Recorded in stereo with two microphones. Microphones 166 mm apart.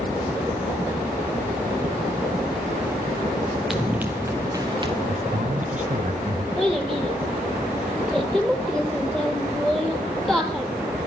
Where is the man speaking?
50° right (ahead or behind), 2.5 m.